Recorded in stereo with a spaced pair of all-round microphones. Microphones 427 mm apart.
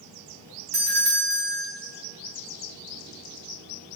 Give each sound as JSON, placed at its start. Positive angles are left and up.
{"t": 0.7, "sound": "a doorbell", "side_deg": -60, "distance_m": 0.8}